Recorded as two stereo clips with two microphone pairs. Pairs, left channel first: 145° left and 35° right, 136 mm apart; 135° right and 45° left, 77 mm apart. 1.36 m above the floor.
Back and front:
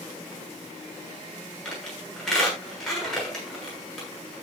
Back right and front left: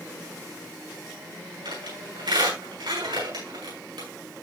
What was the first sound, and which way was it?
A squeak, 60° left.